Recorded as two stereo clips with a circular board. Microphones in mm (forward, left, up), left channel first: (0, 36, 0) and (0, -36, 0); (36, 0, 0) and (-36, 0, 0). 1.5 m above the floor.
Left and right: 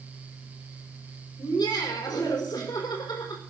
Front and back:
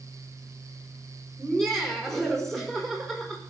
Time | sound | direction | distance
1.4 | laughter | 85° left | 4.5 m